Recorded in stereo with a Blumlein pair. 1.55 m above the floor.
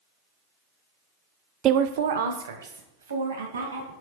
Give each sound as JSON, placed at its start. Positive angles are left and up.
{"t": 1.6, "sound": "a woman speaking", "azimuth_deg": -30, "distance_m": 0.5}